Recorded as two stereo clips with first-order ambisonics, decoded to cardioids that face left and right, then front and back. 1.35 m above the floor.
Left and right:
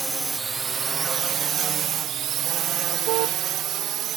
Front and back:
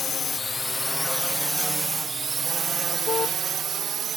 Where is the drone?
25° right; by 4.2 s 125° right.